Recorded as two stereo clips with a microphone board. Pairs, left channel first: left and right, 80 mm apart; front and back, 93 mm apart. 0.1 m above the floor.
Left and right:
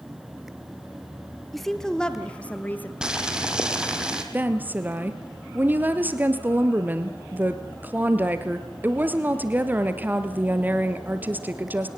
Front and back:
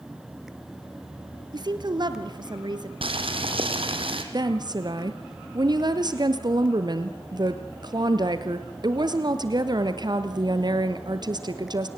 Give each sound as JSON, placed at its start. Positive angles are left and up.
{"t": 1.5, "sound": "a woman speaking", "azimuth_deg": 180, "distance_m": 1.9}
{"t": 3.0, "sound": "boiling", "azimuth_deg": -170, "distance_m": 2.5}
{"t": 4.3, "sound": "a woman speaking", "azimuth_deg": -155, "distance_m": 2.0}